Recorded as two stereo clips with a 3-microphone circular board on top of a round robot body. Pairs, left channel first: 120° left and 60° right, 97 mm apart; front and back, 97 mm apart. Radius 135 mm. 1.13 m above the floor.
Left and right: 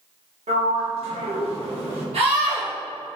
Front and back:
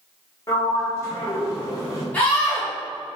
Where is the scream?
75° right, 2 m.